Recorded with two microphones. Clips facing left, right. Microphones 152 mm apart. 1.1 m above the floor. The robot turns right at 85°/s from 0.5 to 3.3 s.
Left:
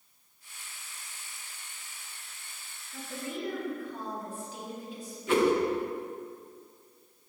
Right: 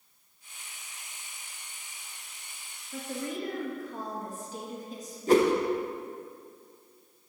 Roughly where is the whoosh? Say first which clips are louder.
Right 3 dB; right.